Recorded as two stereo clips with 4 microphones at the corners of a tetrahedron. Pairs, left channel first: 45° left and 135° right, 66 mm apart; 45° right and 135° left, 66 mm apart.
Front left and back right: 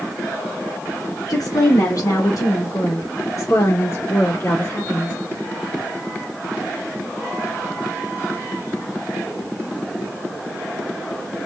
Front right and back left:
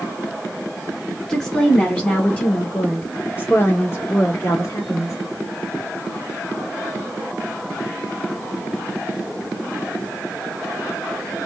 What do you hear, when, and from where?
1.3 s a woman speaking: 35° left, 2.5 m; by 5.1 s 15° right, 2.5 m